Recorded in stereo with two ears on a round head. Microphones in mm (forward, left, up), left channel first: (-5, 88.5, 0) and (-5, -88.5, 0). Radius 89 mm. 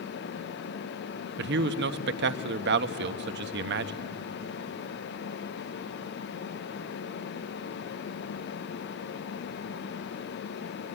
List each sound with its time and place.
1.4 s a man speaking: 60° right (ahead or behind), 1.0 m